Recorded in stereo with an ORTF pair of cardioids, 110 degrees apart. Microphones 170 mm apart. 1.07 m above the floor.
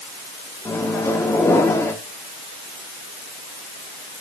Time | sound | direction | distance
0.7 | a microwave | 15° left | 1.7 m